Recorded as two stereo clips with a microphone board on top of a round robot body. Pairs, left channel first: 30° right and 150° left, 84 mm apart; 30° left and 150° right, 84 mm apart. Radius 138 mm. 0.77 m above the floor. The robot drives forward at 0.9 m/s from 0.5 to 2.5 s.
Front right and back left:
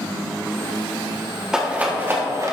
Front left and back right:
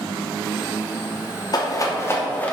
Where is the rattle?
70° left, 1.6 m; by 2.5 s 105° left, 1.6 m.